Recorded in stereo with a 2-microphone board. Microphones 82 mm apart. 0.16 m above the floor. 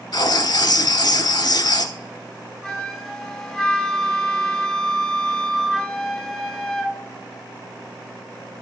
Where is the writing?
60° left (ahead or behind), 0.9 m.